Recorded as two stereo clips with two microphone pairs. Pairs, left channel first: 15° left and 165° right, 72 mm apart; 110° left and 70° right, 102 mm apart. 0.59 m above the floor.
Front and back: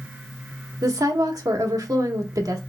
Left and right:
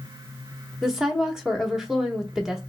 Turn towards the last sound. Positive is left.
turn(degrees=-150)